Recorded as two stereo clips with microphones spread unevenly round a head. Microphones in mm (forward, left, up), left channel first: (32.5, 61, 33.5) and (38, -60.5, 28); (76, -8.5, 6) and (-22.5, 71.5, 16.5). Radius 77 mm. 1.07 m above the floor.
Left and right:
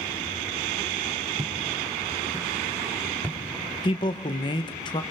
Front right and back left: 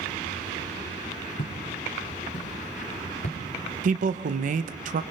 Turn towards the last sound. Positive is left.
turn(degrees=145)